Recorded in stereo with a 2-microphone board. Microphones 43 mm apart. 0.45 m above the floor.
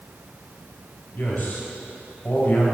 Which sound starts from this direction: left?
A man speaking, at 1.1 s.